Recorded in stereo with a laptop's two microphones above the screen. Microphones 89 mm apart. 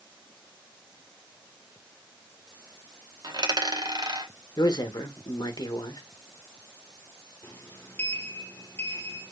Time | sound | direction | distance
3.2 | a dropped coin | 55° right (ahead or behind) | 0.9 m
4.6 | a man speaking | 45° left (ahead or behind) | 0.6 m
7.4 | a sliding door | 30° left (ahead or behind) | 0.7 m